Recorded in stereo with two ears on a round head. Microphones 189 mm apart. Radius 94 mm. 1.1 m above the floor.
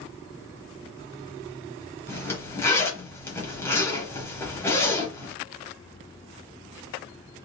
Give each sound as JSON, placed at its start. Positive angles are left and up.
{"t": 2.1, "sound": "a zipper", "side_deg": 10, "distance_m": 1.1}